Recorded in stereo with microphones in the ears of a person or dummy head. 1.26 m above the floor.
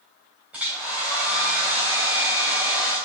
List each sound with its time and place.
0.5 s a hair dryer: 10° right (ahead or behind), 2 m